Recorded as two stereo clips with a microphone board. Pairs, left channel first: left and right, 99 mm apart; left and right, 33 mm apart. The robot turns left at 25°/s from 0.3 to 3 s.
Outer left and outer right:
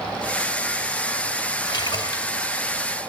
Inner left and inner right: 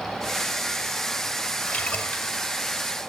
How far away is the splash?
About 2.0 m.